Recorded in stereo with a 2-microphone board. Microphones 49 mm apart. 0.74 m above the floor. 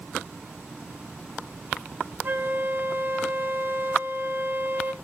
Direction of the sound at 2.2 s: 40° right (ahead or behind).